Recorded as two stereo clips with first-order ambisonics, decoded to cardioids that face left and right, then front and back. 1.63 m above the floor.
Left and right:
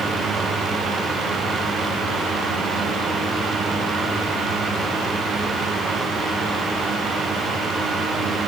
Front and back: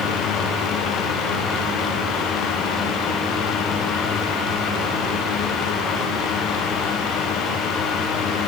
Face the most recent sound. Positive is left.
No sound to turn to.